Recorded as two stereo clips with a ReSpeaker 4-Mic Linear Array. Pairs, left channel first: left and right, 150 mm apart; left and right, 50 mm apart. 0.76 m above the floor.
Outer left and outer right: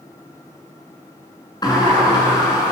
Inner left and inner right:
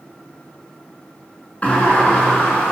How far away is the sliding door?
About 7.5 m.